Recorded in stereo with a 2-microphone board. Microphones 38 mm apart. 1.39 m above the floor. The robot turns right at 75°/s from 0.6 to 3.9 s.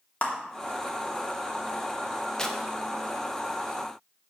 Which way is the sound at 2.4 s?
15° left (ahead or behind).